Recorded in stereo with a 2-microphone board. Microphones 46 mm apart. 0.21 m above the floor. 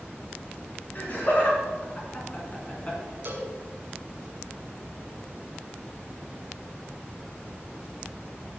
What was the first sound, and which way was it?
Laughter, 45° left (ahead or behind).